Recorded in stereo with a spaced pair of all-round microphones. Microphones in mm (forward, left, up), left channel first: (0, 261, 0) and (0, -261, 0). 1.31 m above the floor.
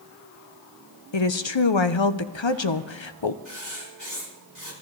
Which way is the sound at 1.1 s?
60° left (ahead or behind).